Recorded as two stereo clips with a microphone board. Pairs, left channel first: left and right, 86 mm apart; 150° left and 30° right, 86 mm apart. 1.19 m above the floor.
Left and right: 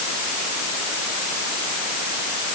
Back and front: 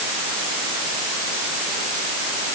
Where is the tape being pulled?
I don't hear tape being pulled.